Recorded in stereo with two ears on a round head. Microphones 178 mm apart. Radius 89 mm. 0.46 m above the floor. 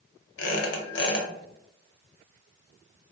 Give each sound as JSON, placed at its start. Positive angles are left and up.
{"t": 0.4, "sound": "a squeak", "side_deg": 65, "distance_m": 0.7}